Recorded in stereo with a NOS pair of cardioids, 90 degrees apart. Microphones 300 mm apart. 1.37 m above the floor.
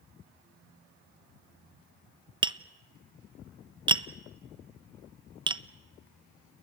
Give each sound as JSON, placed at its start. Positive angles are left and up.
{"t": 2.4, "sound": "tapping", "azimuth_deg": -15, "distance_m": 0.8}